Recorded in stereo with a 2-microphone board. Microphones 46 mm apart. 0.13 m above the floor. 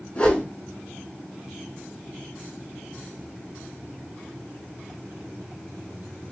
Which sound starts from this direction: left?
A whoosh, at 0.1 s.